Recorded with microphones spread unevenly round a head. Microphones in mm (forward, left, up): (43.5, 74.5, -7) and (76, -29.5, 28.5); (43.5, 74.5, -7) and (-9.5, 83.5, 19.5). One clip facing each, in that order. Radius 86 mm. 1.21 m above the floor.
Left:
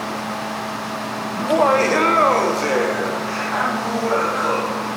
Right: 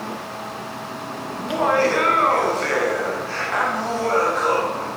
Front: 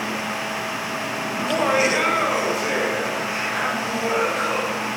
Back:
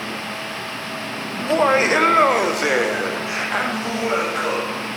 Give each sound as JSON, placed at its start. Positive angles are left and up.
{"t": 1.4, "sound": "laughter", "azimuth_deg": 100, "distance_m": 1.2}